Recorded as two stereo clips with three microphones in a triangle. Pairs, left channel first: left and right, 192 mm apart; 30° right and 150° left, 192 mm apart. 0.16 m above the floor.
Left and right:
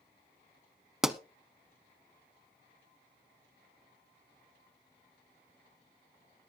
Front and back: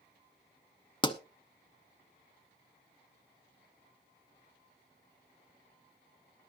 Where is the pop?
5° right, 0.8 m.